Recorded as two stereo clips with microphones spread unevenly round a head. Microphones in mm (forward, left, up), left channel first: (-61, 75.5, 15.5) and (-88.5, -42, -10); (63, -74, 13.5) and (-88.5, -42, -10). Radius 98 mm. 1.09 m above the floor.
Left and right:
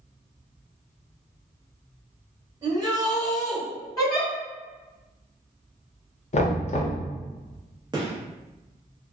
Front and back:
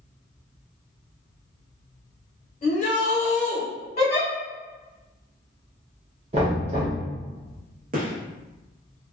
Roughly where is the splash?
I don't hear a splash.